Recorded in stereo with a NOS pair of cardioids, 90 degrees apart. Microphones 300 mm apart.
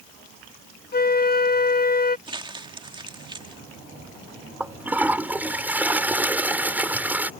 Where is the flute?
35° left.